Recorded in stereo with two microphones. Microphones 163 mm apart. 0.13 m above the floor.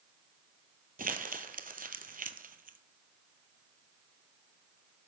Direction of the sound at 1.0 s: 60° right (ahead or behind).